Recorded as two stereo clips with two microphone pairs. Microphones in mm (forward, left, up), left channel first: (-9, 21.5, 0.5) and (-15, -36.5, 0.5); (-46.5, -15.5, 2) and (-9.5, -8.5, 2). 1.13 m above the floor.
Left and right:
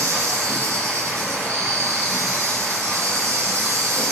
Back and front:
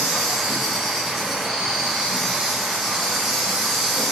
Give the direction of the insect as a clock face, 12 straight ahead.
2 o'clock.